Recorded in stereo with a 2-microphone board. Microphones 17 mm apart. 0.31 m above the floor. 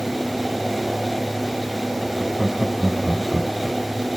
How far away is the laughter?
About 2.5 m.